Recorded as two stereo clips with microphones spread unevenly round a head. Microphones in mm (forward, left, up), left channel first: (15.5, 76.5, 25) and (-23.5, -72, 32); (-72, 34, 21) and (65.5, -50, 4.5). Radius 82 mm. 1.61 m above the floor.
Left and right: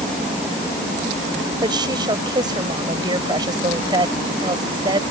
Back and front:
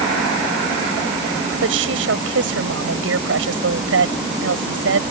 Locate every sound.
1.6 s a woman speaking: 40° right